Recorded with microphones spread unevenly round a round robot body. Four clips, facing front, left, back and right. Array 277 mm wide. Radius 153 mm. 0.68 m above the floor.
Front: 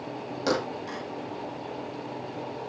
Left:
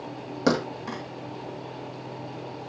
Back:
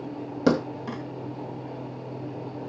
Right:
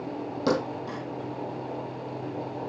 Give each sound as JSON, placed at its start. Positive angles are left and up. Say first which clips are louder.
{"t": 0.5, "sound": "a thud", "louder": "left 2 dB, back 5 dB", "azimuth_deg": 165, "distance_m": 1.3}